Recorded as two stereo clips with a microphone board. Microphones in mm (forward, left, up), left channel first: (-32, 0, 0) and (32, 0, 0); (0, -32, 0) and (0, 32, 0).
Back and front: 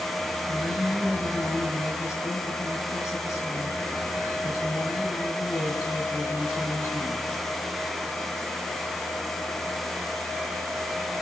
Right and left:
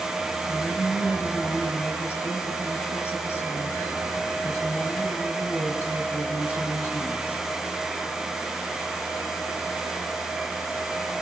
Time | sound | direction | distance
0.5 | a woman speaking | 140° right | 4.5 m